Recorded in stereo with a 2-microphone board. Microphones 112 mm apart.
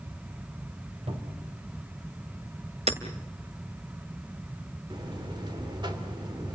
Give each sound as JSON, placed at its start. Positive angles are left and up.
{"t": 1.1, "sound": "a cupboard door", "side_deg": -65, "distance_m": 4.0}
{"t": 2.9, "sound": "hammering", "side_deg": -70, "distance_m": 2.0}
{"t": 4.9, "sound": "a buzzer", "side_deg": -45, "distance_m": 2.5}